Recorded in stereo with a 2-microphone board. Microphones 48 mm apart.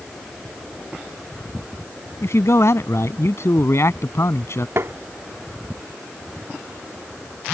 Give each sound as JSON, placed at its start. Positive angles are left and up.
{"t": 2.2, "sound": "a man speaking", "side_deg": 70}
{"t": 4.8, "sound": "tapping", "side_deg": -60}